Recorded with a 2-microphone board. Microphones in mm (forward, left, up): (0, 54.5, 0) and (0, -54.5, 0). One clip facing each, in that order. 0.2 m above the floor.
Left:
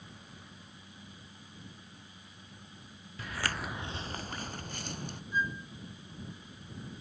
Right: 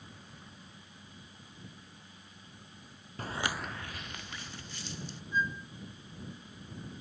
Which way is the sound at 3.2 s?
45° right (ahead or behind).